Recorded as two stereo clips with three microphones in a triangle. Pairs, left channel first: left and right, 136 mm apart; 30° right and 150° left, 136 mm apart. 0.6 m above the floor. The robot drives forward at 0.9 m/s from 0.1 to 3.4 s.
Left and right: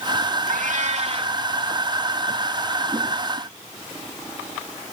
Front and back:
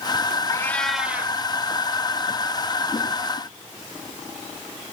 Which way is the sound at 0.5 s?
95° right.